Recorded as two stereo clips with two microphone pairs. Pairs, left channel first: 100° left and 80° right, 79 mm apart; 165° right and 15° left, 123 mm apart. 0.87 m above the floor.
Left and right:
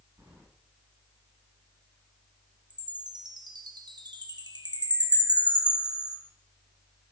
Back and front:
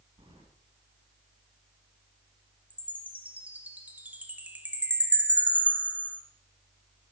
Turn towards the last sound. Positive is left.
turn(degrees=-60)